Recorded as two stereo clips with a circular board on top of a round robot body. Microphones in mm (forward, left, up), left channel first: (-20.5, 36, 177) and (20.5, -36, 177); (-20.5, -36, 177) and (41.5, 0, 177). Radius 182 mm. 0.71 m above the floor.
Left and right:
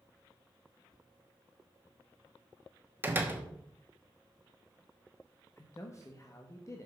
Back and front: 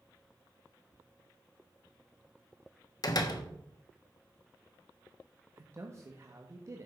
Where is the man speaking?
75° left, 1.2 m.